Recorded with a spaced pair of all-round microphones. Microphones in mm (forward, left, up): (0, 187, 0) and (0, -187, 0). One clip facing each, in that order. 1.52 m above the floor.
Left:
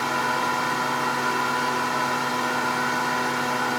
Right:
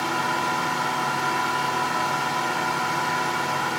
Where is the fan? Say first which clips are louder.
Even; 75° right (ahead or behind), 1.9 m.